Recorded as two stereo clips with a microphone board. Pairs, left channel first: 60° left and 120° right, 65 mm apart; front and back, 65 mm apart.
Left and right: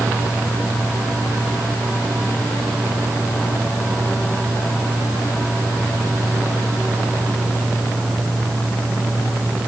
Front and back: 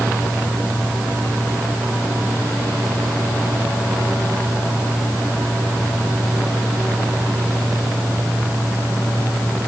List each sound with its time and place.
Only background noise.